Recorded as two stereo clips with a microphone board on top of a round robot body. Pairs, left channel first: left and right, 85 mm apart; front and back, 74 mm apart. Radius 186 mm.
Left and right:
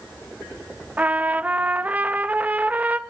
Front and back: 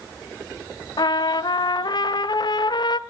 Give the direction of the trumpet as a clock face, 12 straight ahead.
1 o'clock.